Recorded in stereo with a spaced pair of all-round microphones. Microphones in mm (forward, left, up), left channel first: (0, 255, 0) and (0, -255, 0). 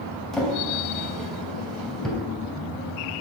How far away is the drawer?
About 3 m.